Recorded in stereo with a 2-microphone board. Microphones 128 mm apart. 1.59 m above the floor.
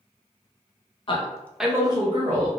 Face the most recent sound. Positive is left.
turn(degrees=-65)  # may be behind; listen again after turning